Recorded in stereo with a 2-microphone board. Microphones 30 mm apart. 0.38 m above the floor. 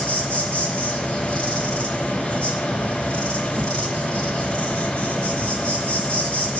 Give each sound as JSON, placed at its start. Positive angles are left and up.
{"t": 0.0, "sound": "an insect", "side_deg": 45, "distance_m": 3.5}